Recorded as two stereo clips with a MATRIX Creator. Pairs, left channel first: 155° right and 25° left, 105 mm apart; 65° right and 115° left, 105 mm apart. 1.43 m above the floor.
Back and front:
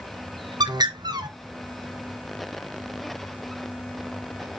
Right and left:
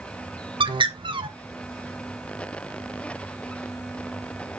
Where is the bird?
70° left, 0.8 m.